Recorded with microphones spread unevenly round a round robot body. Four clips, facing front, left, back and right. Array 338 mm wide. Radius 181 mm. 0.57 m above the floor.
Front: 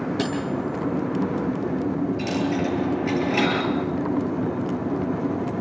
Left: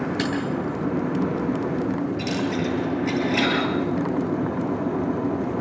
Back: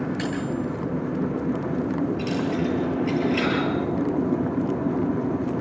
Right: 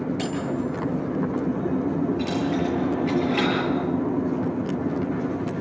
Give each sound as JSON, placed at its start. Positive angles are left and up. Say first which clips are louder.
{"t": 0.2, "sound": "cutlery clinking", "louder": "left 1 dB, front 1 dB", "azimuth_deg": 20, "distance_m": 7.0}
{"t": 2.2, "sound": "a dropped coin", "louder": "right 1 dB, front 1 dB", "azimuth_deg": 35, "distance_m": 7.0}